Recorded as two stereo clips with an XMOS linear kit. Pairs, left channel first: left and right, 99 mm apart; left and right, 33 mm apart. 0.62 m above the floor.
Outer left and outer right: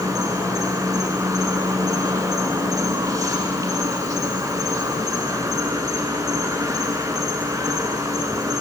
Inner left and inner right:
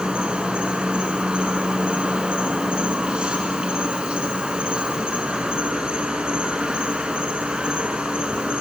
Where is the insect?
35° right (ahead or behind), 1.1 m.